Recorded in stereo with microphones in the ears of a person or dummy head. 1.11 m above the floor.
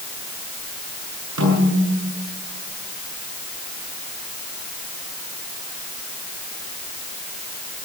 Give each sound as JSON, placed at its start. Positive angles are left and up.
{"t": 1.4, "sound": "a snare drum", "side_deg": -85, "distance_m": 9.0}